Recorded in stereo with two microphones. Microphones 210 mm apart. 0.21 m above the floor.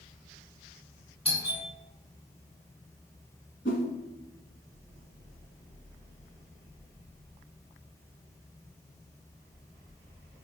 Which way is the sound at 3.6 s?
60° left (ahead or behind).